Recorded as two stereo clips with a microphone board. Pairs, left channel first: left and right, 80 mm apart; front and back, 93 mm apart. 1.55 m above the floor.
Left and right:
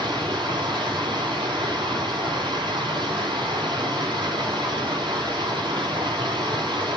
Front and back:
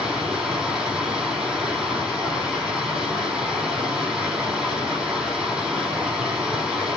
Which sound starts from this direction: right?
Running water, at 0.0 s.